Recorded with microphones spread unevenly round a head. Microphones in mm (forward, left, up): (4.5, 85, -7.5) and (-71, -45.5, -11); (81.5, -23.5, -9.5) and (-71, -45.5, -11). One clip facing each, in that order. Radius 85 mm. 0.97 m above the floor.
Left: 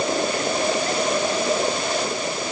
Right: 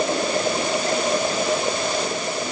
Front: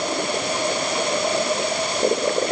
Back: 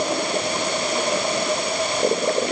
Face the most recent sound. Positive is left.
No sound to turn to.